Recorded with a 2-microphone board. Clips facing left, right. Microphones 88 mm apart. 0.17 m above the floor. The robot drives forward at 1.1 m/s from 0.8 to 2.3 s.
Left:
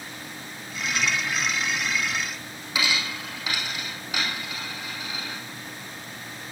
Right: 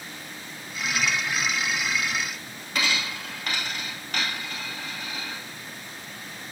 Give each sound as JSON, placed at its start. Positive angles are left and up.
{"t": 2.8, "sound": "a dropped coin", "side_deg": 5, "distance_m": 2.5}